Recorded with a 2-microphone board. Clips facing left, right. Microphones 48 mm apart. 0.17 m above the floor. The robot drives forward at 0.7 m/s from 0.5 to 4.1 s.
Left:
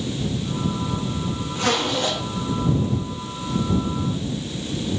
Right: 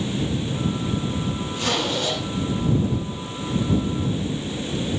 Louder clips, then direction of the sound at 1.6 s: Left 3 dB; 40° left (ahead or behind).